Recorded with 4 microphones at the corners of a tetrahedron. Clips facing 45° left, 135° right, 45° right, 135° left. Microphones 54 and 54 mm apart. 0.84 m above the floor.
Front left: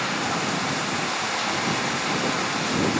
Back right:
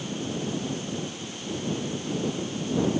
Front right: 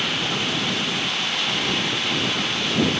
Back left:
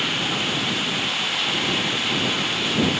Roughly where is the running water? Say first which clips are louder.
Front left 6 dB, even; ahead left.